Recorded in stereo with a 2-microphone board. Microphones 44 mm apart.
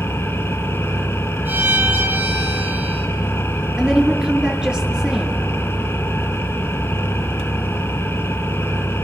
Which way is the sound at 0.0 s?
70° left (ahead or behind).